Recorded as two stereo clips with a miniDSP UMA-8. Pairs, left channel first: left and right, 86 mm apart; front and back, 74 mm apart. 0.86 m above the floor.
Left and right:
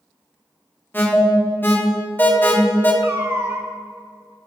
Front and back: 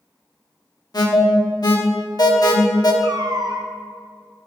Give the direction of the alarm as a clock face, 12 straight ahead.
11 o'clock.